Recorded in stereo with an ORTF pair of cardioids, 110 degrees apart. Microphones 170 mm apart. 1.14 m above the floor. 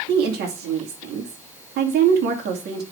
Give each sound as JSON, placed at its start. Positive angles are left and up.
{"t": 0.1, "sound": "a woman speaking", "azimuth_deg": -70, "distance_m": 2.5}